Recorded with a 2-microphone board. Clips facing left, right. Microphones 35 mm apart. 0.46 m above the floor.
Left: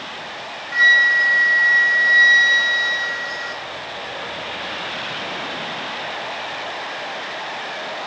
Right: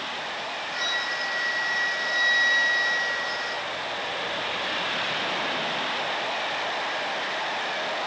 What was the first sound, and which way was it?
A flute, 75° left (ahead or behind).